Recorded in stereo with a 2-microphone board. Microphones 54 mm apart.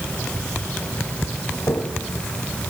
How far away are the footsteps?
About 5.5 m.